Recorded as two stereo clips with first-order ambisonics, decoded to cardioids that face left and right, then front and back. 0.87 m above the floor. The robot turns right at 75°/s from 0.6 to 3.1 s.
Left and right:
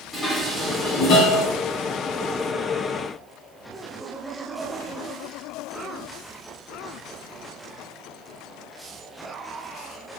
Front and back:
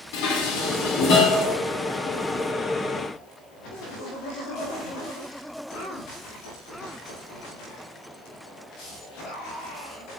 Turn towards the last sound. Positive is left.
turn(degrees=-165)